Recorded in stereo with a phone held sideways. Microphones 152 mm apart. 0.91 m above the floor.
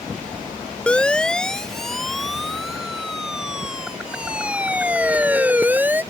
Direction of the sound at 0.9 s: 5° left (ahead or behind).